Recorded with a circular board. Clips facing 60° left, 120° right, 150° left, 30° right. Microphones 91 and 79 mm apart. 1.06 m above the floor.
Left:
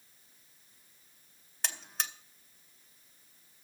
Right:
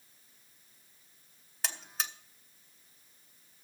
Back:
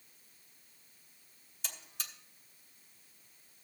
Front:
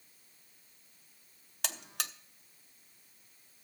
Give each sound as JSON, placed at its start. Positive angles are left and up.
{"t": 1.6, "sound": "a buzzer", "azimuth_deg": -30, "distance_m": 0.8}